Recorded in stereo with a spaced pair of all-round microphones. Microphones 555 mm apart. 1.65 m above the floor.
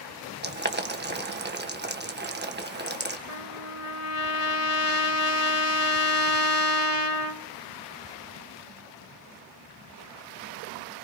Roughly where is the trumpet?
Left.